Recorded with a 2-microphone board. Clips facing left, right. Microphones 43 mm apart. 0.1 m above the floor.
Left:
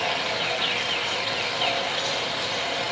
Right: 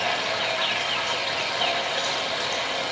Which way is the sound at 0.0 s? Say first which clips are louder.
Right 1 dB; 70° right (ahead or behind).